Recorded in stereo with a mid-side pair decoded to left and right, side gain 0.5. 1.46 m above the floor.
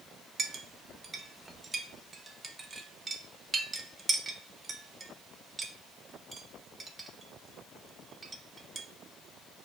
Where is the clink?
30° right, 1.0 m.